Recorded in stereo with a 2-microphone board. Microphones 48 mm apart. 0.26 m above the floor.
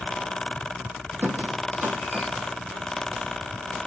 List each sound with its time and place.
1.2 s a squeak: 45° right (ahead or behind), 3 m